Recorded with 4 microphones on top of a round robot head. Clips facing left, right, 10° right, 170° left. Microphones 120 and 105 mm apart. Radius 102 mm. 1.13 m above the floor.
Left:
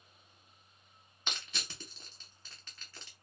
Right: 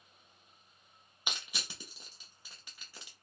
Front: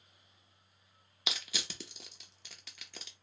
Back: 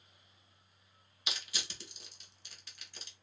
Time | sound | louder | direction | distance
1.3 | crushing | even, front 3 dB | 10° right | 0.6 m